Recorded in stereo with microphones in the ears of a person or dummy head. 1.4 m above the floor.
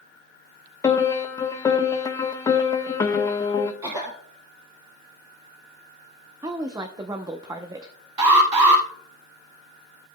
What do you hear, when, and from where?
0.8 s a piano: 20° left (ahead or behind), 1.0 m
3.8 s a cough: 15° right (ahead or behind), 2 m
6.4 s a woman speaking: 15° right (ahead or behind), 0.7 m
8.2 s an alarm: 30° right (ahead or behind), 5 m